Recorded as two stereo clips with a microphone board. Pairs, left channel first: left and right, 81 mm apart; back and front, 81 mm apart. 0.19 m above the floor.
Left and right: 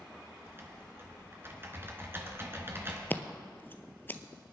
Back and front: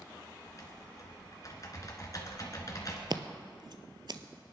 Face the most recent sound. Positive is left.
turn(degrees=25)